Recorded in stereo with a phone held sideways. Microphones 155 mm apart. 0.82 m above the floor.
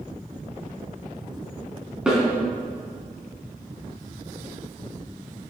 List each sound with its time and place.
2.1 s a snare drum: 5° right (ahead or behind), 3.5 m